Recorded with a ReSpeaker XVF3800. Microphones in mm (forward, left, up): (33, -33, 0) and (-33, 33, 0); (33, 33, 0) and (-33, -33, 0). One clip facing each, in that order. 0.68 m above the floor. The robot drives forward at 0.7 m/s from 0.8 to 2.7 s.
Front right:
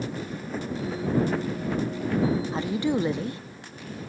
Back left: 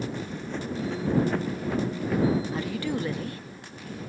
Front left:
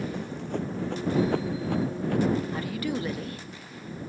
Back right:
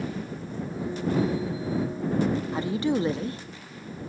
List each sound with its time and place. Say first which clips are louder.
0.1 s running footsteps: front right 1 dB, front left 2 dB; 40° left; by 2.4 s 50° left
2.5 s a woman speaking: front right 4 dB, back right 5 dB; 75° right; by 3.4 s 95° right